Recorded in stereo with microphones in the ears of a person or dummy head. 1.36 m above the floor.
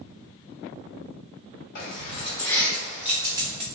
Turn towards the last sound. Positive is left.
turn(degrees=-20)  # may be behind; listen again after turning